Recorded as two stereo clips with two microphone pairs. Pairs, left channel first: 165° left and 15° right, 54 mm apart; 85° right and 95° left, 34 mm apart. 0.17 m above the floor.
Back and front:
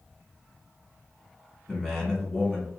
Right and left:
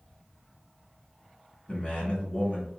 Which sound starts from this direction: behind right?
A man speaking, at 1.7 s.